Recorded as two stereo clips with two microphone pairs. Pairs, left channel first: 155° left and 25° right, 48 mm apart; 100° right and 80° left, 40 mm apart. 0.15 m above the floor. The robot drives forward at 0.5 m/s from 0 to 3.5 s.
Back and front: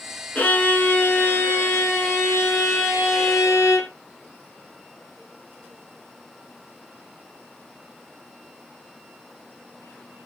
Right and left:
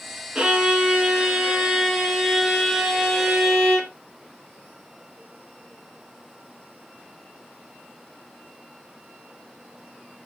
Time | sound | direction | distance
0.3 | a violin | 125° left | 1.7 m